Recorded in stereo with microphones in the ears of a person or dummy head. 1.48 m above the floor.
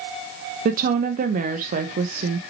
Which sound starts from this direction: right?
A woman speaking, at 0.7 s.